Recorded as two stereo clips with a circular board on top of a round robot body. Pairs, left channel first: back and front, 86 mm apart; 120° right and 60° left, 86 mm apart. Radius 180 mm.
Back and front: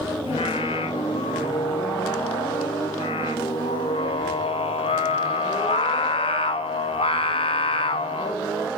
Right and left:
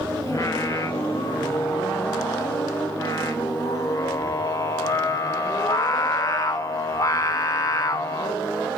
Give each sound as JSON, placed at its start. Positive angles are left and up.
{"t": 0.3, "sound": "singing", "azimuth_deg": -170, "distance_m": 0.6}